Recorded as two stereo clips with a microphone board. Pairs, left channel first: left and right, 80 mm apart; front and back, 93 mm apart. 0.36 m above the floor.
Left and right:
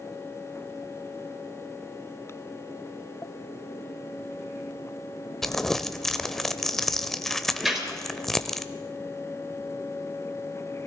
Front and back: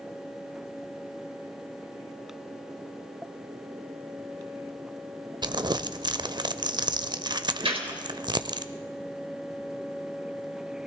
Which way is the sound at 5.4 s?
175° left.